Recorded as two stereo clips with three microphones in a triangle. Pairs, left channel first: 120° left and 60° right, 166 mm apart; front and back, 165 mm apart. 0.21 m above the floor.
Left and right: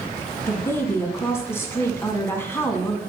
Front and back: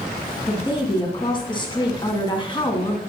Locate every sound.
0.5 s a woman speaking: 50° left, 2 m